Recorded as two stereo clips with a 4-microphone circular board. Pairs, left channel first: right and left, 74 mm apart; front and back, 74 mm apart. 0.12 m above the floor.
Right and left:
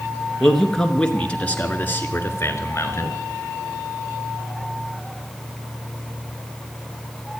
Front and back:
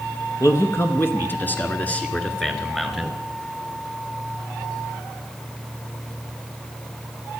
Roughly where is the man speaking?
Ahead.